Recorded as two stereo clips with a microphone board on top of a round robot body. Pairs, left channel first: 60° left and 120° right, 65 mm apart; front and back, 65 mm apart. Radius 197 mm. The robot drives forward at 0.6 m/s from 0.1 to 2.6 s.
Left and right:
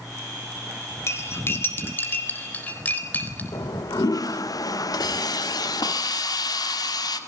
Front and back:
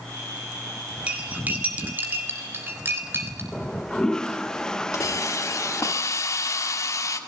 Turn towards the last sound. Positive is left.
turn(degrees=40)